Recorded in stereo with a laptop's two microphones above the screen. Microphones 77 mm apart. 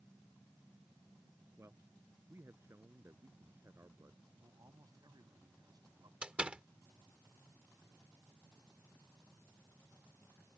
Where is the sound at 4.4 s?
55° right (ahead or behind).